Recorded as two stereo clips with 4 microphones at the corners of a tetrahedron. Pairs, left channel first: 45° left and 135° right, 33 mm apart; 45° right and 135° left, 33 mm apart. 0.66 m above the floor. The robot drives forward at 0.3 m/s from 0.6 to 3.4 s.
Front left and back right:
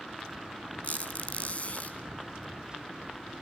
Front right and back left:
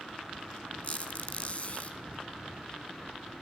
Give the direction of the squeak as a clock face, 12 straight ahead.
12 o'clock.